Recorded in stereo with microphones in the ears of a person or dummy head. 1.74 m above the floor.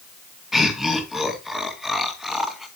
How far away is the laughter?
About 2.0 m.